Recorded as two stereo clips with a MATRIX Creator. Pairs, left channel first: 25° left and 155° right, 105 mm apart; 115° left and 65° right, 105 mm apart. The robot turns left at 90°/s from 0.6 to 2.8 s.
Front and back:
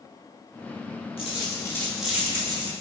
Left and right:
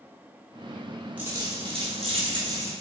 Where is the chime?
No chime in this recording.